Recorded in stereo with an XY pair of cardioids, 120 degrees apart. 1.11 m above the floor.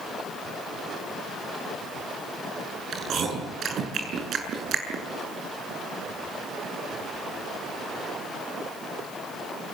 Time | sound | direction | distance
2.9 | chewing | 50° right | 7.5 m